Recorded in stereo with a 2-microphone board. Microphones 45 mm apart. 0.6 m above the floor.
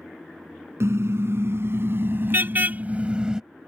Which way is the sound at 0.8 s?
80° right.